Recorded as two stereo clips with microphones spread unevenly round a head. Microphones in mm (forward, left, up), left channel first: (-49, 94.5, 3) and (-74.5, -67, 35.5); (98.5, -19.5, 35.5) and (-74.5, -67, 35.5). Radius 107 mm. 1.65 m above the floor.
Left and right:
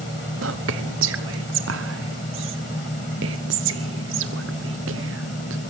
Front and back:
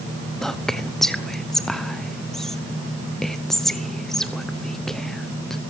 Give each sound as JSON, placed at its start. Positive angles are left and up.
{"t": 0.4, "sound": "whispering", "azimuth_deg": -75, "distance_m": 0.9}